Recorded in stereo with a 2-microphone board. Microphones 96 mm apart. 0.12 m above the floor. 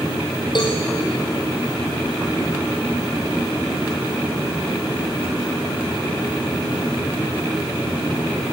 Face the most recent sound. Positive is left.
turn(degrees=50)  # may be behind; listen again after turning